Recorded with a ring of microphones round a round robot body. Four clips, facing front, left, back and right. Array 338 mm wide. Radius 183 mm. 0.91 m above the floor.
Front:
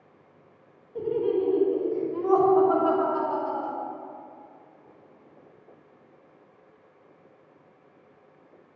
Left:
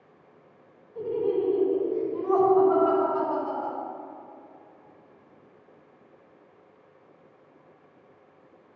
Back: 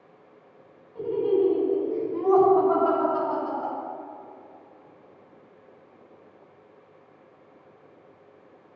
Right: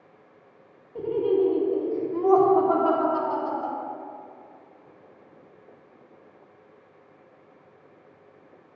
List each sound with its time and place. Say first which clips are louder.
0.9 s laughter: right 3 dB, back 2 dB; 55° right, 2 m; by 3.8 s 95° right, 3 m